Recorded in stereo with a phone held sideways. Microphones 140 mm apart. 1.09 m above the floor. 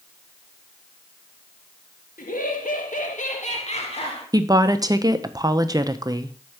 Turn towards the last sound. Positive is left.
turn(degrees=-25)  # may be behind; listen again after turning